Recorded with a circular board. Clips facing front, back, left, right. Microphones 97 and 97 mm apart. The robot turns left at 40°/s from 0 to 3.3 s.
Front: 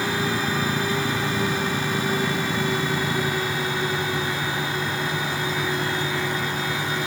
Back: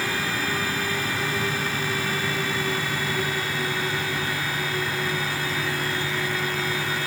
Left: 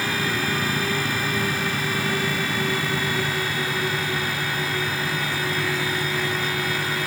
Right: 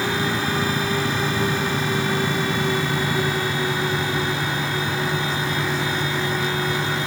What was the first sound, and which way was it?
Only background noise.